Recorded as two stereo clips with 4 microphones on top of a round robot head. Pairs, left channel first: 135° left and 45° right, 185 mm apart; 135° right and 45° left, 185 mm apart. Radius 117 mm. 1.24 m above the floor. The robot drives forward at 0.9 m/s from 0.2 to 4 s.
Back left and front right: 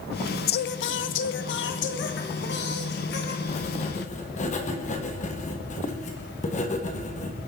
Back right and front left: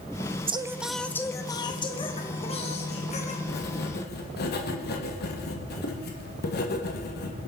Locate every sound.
0.5 s singing: 105° left, 0.6 m; by 3.4 s 170° left, 3 m
3.5 s writing: 170° right, 1.8 m